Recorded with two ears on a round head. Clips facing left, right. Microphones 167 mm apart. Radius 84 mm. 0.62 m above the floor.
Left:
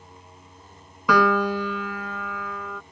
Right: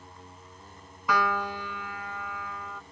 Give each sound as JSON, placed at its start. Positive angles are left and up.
{"t": 0.0, "sound": "a vehicle", "side_deg": 15}
{"t": 1.1, "sound": "a piano", "side_deg": 65}